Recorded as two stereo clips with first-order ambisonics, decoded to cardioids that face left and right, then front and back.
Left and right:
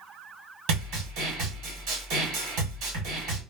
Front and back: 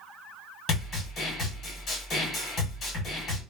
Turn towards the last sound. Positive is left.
turn(degrees=-60)